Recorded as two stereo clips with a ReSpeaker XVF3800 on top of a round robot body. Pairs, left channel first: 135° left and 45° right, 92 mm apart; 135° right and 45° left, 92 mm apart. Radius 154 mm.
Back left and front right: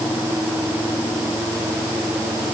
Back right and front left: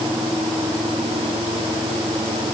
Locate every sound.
Only background noise.